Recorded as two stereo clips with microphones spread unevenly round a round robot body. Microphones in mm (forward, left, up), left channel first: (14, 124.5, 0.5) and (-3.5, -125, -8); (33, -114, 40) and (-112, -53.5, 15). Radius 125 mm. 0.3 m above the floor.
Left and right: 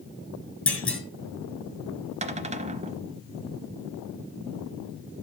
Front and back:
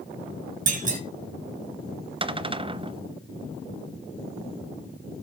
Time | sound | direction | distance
0.7 | a clunk | 170° left | 2 m
2.2 | a cupboard door | 155° right | 0.8 m